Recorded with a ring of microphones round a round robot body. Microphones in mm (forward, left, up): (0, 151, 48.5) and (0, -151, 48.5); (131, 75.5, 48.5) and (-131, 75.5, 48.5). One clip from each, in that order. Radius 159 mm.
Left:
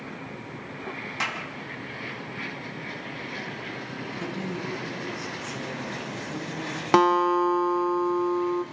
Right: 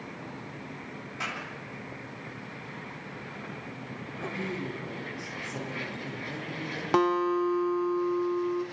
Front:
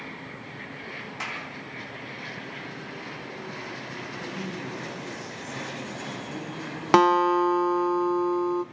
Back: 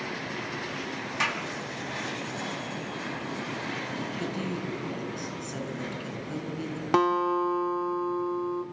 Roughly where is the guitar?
Ahead left.